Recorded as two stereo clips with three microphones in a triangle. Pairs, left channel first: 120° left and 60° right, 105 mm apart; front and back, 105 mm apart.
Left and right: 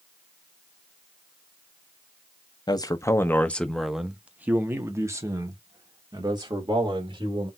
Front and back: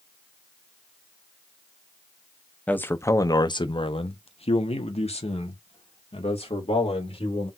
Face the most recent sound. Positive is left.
turn(degrees=-15)